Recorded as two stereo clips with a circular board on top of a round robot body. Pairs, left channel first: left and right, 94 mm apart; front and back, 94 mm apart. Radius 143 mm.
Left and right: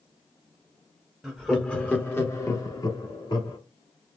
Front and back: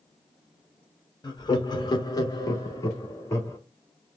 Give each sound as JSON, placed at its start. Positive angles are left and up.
{"t": 1.2, "sound": "laughter", "azimuth_deg": -5, "distance_m": 1.1}